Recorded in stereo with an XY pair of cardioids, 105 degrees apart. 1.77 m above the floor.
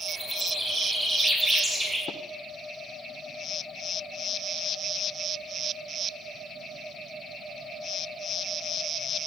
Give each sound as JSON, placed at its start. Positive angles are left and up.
{"t": 0.1, "sound": "a bird", "azimuth_deg": -10, "distance_m": 6.5}
{"t": 2.1, "sound": "tapping", "azimuth_deg": 65, "distance_m": 1.2}